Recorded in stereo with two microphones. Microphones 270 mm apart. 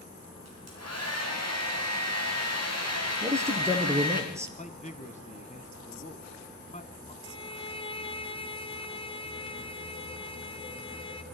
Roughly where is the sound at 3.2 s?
Centre.